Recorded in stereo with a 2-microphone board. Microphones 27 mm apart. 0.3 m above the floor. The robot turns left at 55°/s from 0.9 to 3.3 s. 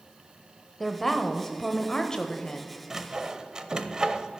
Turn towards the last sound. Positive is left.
turn(degrees=-25)  # may be behind; listen again after turning